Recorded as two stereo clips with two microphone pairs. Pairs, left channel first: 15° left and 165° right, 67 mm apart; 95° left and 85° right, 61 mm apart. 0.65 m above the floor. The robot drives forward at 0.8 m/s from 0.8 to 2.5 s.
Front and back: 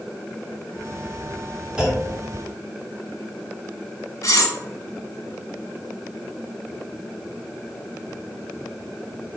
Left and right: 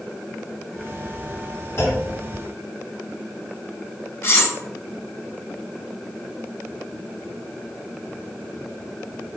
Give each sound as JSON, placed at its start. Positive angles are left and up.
{"t": 1.8, "sound": "a clunk", "azimuth_deg": 120, "distance_m": 1.6}
{"t": 4.2, "sound": "cutlery clinking", "azimuth_deg": 45, "distance_m": 0.6}